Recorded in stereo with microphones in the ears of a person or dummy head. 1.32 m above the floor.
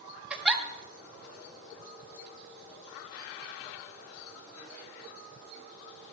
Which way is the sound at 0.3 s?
5° right (ahead or behind).